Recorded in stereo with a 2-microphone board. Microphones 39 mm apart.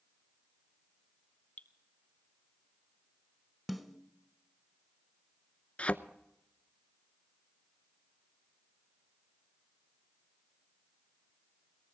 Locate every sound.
1.6 s dripping: 40° left (ahead or behind), 1.1 m
3.7 s a snare drum: 5° right (ahead or behind), 1.1 m
5.8 s a thud: 30° left (ahead or behind), 0.7 m